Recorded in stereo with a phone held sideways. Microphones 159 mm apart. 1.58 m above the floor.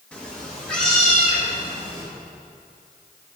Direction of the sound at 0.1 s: 5° left (ahead or behind).